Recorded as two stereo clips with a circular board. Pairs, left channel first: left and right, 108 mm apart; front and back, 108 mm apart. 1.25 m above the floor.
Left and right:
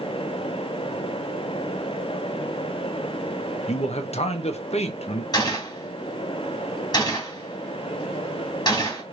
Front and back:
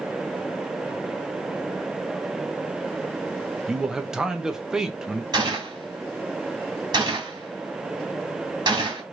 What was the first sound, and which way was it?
A man speaking, 95° left.